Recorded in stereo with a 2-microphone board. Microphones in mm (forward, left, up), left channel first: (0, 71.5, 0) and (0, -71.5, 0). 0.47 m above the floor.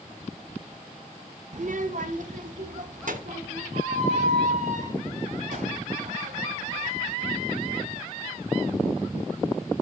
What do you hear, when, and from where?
1.5 s a child speaking: 55° right (ahead or behind), 0.5 m; by 3.6 s 65° right (ahead or behind), 3.5 m
3.7 s a squeak: 55° right (ahead or behind), 6 m